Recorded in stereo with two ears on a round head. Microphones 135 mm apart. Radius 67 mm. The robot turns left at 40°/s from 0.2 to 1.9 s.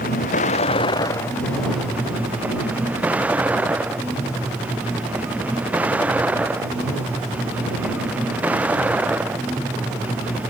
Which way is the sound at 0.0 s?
60° left.